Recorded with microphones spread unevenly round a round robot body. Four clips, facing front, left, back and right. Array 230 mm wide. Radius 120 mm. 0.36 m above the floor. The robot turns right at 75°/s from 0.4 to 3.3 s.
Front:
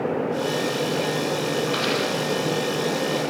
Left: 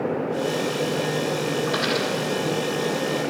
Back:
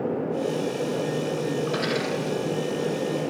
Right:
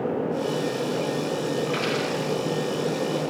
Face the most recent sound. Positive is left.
turn(degrees=-90)